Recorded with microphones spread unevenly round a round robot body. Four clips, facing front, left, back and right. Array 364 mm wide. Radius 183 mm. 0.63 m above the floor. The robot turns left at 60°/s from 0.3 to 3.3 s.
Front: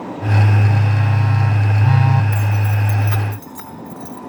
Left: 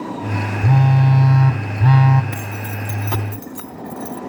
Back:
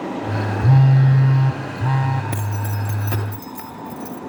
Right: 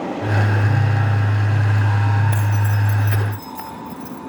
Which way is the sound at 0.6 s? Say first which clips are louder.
Left 5 dB, back 4 dB; 145° left.